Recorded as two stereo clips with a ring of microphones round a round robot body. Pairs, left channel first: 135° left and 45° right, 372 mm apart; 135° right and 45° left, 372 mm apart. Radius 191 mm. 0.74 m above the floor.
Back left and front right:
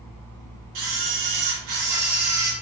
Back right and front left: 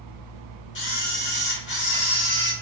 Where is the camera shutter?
75° right, 1.3 m.